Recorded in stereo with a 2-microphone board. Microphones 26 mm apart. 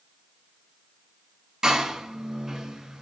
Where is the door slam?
20° right (ahead or behind), 1.6 m.